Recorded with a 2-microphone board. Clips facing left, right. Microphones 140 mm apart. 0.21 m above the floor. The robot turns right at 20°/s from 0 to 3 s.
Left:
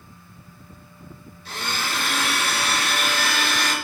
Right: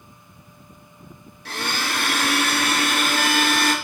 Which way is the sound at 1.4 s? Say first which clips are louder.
Right 2 dB; 80° right.